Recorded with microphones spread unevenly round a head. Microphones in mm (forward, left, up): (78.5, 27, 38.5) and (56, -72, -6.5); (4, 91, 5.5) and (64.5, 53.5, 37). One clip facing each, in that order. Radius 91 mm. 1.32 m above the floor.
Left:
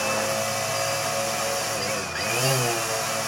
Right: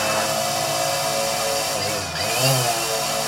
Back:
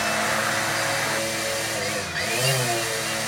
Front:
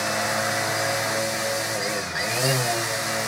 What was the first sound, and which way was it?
A machine running, 20° right.